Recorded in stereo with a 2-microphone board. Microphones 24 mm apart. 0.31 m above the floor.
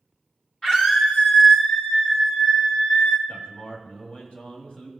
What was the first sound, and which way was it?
A scream, 25° left (ahead or behind).